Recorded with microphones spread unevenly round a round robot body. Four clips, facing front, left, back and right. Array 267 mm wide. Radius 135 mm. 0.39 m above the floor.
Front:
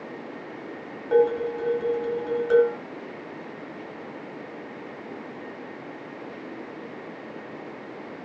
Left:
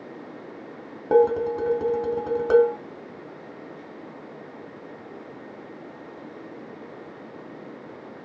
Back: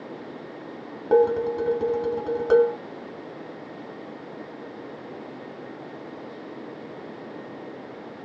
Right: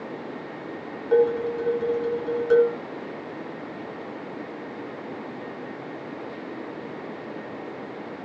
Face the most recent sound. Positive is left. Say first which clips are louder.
# left 2 dB, back 1 dB
turn(degrees=130)